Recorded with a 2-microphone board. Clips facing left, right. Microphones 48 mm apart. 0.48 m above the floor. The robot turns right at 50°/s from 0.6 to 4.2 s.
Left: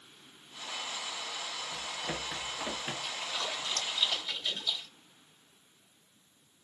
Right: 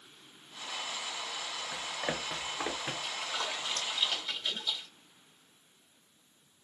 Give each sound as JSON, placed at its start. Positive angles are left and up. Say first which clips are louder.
{"t": 1.7, "sound": "running footsteps", "louder": "right 4 dB", "side_deg": -80, "distance_m": 2.5}
{"t": 3.0, "sound": "a splash", "louder": "right 1 dB", "side_deg": -45, "distance_m": 1.9}